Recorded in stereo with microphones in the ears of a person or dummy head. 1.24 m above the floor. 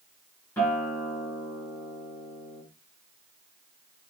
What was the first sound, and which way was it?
A guitar, 10° left (ahead or behind).